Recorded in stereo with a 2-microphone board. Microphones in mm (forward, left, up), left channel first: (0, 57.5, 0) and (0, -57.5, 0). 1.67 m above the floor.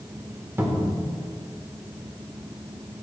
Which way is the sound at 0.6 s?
20° right (ahead or behind).